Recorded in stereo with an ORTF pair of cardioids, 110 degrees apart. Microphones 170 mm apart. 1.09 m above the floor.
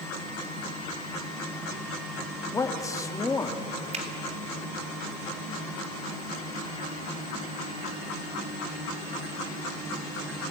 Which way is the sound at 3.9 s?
40° right.